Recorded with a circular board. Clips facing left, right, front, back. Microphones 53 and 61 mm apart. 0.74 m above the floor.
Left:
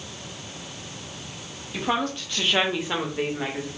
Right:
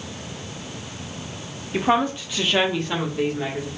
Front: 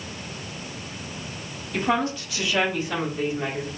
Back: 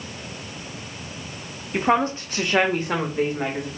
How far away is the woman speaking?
About 0.7 m.